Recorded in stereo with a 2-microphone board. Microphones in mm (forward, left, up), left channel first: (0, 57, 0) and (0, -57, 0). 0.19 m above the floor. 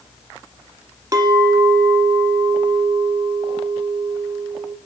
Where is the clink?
35° right (ahead or behind), 1.3 m.